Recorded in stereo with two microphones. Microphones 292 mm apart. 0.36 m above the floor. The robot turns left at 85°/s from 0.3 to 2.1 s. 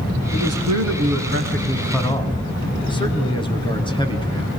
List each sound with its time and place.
0.3 s a man speaking: 45° right, 3 m; by 4.5 s 160° left, 3 m